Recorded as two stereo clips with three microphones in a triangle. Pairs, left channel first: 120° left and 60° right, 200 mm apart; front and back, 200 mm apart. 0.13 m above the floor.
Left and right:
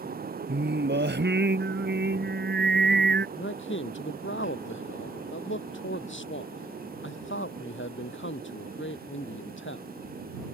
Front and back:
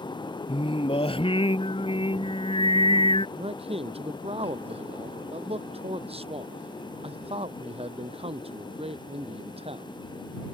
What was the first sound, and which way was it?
Singing, 60° right.